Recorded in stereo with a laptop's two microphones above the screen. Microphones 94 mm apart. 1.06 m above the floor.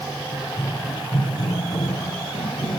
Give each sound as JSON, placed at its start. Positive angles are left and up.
{"t": 0.3, "sound": "running footsteps", "side_deg": 30, "distance_m": 4.5}